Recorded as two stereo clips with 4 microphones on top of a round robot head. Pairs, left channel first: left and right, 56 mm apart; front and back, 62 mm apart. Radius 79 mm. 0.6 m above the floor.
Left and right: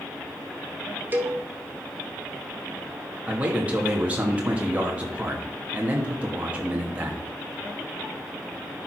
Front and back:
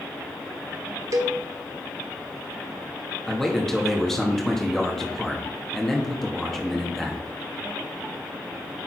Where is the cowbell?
145° right, 1.0 m.